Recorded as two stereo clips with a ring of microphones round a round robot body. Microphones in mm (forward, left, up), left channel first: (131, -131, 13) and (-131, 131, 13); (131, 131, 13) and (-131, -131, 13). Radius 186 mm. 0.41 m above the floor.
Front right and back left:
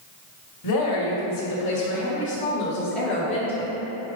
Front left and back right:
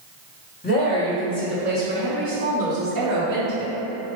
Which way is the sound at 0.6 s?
20° right.